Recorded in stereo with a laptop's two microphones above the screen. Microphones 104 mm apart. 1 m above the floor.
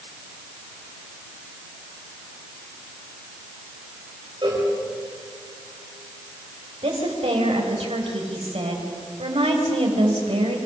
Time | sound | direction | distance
4.4 | a cowbell | 50° right (ahead or behind) | 4.5 m
6.8 | a woman speaking | 85° right | 4 m